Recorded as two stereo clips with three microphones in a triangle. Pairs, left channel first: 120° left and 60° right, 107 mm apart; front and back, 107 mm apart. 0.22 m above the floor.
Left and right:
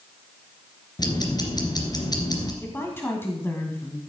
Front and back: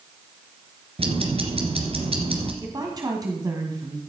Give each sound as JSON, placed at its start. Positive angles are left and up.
{"t": 1.0, "sound": "ticking", "azimuth_deg": 165, "distance_m": 2.0}
{"t": 2.6, "sound": "a woman speaking", "azimuth_deg": 175, "distance_m": 1.8}